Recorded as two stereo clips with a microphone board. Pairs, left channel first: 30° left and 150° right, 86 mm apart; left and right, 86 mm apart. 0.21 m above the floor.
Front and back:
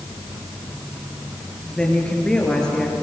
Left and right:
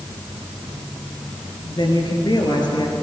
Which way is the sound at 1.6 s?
110° left.